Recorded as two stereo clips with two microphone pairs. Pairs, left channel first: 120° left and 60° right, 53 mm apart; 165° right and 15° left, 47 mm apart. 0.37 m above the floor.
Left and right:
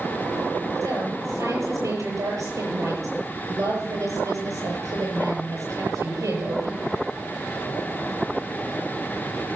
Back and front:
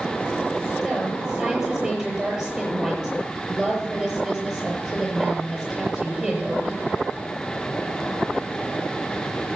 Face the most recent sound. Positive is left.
turn(degrees=-55)